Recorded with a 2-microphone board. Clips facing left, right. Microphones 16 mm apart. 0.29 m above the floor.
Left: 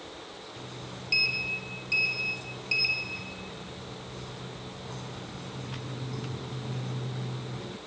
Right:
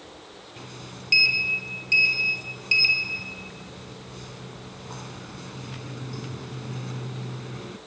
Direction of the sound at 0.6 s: 30° right (ahead or behind).